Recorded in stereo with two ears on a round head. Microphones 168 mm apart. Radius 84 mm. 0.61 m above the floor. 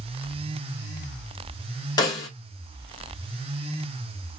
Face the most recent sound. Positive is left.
turn(degrees=20)  # may be behind; listen again after turning